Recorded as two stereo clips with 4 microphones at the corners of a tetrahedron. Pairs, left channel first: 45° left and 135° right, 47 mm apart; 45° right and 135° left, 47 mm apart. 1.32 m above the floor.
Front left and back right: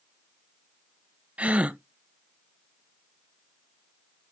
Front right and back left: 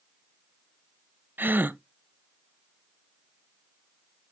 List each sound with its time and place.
1.4 s a gasp: 165° left, 0.6 m